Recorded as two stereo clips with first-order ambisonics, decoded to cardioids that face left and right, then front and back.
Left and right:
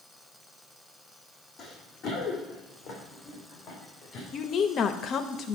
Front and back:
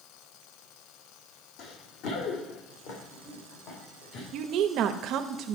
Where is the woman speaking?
145° left, 0.6 m.